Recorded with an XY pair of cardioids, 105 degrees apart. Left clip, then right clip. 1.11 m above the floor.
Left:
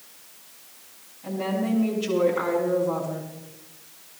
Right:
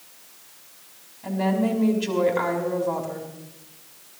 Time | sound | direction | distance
1.2 | a woman speaking | 70° right | 5.5 m